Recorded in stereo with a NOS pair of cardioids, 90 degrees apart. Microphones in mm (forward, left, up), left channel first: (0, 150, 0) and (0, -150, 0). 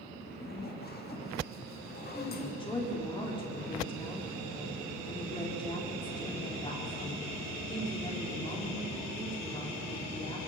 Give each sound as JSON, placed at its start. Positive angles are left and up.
{"t": 0.2, "sound": "a zipper", "azimuth_deg": 30, "distance_m": 1.8}
{"t": 2.1, "sound": "a woman speaking", "azimuth_deg": 15, "distance_m": 4.0}